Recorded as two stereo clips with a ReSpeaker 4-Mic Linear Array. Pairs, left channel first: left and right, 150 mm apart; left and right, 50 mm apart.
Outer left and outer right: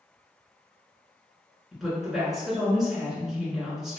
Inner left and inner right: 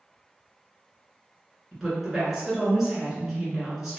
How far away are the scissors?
I don't hear scissors.